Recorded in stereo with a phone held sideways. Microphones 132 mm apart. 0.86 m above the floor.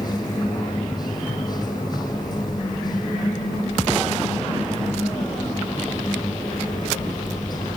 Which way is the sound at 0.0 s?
30° left (ahead or behind).